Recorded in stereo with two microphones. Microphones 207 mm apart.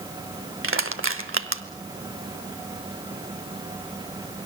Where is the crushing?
85° right, 1.4 m.